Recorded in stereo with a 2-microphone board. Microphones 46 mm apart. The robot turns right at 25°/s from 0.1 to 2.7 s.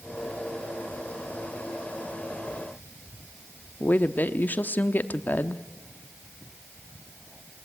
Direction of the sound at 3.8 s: 40° left (ahead or behind).